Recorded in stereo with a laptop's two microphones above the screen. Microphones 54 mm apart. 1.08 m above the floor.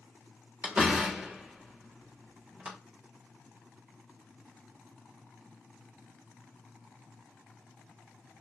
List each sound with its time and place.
0.6 s a door slam: 25° right (ahead or behind), 1.1 m